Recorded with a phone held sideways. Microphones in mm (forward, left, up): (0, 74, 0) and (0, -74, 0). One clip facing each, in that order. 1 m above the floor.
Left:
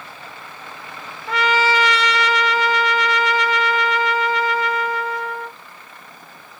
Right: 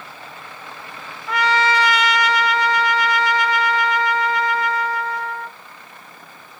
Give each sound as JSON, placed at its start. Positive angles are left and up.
{"t": 1.3, "sound": "a trumpet", "side_deg": 30, "distance_m": 1.1}